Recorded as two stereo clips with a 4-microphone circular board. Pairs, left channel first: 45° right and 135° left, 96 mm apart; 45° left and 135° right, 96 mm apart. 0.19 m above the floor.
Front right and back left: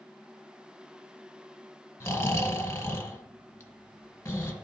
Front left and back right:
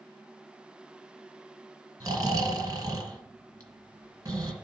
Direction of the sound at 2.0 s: 95° right.